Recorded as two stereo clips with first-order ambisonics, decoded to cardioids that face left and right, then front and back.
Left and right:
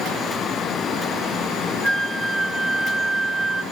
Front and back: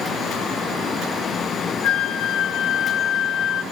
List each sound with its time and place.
1.8 s a flute: 10° left, 1.0 m